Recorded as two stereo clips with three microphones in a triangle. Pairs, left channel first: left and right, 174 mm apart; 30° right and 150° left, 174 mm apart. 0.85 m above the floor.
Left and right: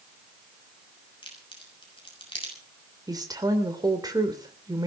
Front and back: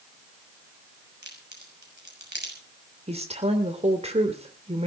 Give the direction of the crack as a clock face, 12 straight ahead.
7 o'clock.